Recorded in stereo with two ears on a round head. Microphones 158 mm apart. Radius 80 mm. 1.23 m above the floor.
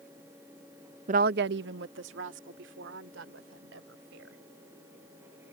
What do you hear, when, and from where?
1.1 s a woman speaking: 40° right (ahead or behind); by 4.4 s 90° right